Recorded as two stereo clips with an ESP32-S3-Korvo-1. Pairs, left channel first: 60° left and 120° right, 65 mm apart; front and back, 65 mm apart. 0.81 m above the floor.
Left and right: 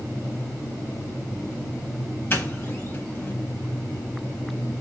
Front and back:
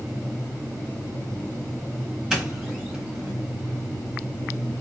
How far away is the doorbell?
About 1.5 m.